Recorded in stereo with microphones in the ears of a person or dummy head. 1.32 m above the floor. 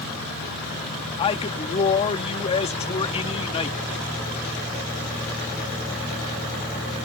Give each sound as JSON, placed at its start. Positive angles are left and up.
{"t": 1.2, "sound": "a man speaking", "side_deg": 30}